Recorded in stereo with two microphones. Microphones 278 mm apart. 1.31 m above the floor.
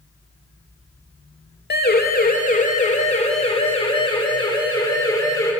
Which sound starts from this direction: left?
A siren, at 1.7 s.